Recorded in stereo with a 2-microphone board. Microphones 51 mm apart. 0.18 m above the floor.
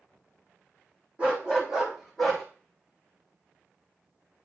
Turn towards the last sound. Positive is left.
turn(degrees=5)  # may be behind; listen again after turning